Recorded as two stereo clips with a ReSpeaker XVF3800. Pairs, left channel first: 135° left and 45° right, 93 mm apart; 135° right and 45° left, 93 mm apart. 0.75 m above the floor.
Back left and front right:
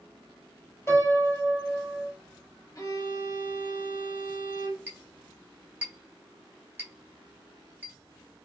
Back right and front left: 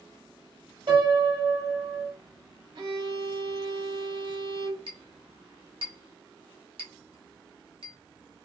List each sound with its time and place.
0.9 s a piano: 75° left, 1.5 m
2.8 s a violin: 85° left, 1.2 m
4.9 s a clink: 25° left, 1.4 m